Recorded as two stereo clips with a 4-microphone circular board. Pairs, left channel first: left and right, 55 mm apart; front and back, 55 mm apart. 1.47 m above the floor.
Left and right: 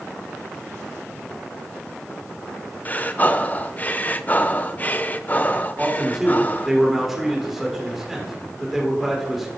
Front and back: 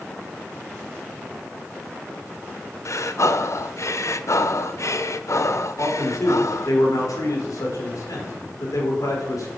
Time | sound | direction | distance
2.9 | breathing | 30° left | 0.8 m
5.8 | a man speaking | 5° right | 5.5 m